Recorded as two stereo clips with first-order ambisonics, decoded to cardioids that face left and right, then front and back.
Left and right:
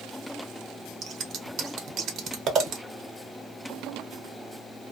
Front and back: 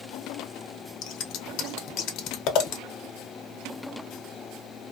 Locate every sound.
1.0 s scissors: 40° right, 0.7 m